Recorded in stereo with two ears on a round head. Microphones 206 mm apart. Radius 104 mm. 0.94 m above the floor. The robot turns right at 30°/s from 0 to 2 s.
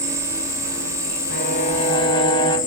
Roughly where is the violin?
Left.